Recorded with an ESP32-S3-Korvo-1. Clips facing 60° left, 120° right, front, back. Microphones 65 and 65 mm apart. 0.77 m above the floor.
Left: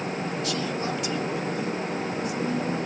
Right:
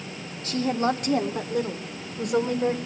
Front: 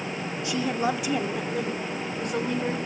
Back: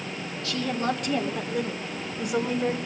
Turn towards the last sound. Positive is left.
turn(degrees=-100)